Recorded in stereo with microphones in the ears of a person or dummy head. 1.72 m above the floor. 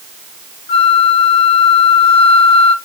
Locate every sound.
0.7 s a flute: 35° left (ahead or behind), 0.8 m